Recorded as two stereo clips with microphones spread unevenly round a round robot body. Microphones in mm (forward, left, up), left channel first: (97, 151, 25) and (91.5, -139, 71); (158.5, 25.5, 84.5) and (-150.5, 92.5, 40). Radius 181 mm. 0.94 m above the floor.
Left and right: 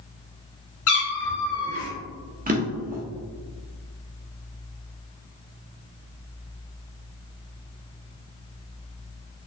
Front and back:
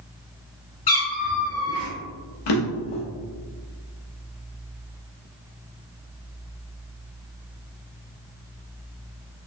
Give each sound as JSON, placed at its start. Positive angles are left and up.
{"t": 0.9, "sound": "a cat meowing", "azimuth_deg": 45, "distance_m": 2.0}
{"t": 2.5, "sound": "a drawer", "azimuth_deg": -30, "distance_m": 0.8}